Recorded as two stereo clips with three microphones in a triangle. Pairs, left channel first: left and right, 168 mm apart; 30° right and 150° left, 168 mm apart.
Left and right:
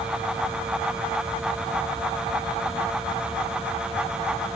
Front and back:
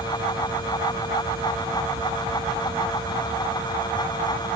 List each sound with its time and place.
Only background noise.